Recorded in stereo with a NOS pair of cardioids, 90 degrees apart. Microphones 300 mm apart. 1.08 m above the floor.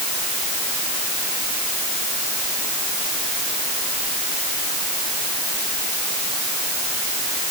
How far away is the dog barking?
No dog barking in this recording.